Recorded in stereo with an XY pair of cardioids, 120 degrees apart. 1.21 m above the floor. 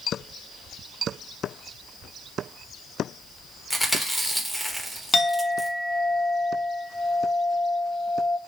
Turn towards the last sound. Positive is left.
turn(degrees=30)